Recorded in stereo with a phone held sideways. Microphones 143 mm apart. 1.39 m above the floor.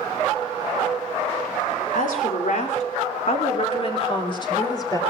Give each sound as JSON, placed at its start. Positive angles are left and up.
{"t": 1.9, "sound": "a woman speaking", "side_deg": 75, "distance_m": 3.5}